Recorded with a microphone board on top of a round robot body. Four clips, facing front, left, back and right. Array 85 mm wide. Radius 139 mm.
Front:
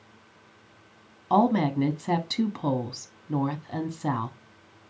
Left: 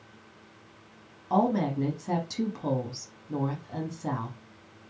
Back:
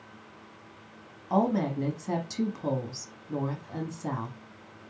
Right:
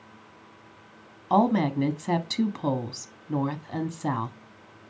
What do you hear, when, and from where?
1.3 s a woman speaking: 50° right, 0.9 m